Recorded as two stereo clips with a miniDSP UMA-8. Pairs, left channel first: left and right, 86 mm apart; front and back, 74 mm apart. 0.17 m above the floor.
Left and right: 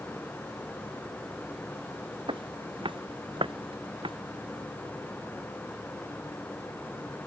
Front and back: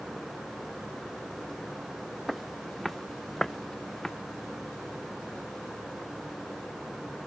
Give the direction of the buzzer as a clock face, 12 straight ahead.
No buzzer in this recording.